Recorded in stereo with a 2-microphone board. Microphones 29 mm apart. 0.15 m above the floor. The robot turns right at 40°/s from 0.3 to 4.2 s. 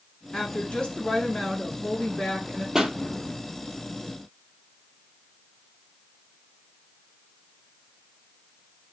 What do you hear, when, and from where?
0.3 s a woman speaking: 100° left, 1.9 m; by 2.6 s 165° right, 1.9 m
2.8 s a pop: 20° right (ahead or behind), 0.7 m; by 3.0 s 10° right (ahead or behind), 0.7 m